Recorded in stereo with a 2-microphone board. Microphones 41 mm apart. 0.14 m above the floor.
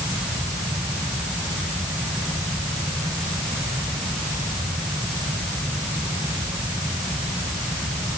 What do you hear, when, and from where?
Only background noise.